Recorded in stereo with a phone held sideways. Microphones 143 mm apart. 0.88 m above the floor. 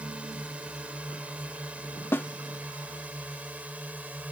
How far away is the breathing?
I don't hear breathing.